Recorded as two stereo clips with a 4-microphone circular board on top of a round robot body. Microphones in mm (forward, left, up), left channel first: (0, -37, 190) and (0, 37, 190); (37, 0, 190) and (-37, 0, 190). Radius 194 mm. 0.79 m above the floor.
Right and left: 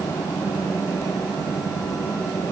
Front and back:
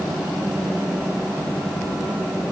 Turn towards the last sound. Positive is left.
No sound to turn to.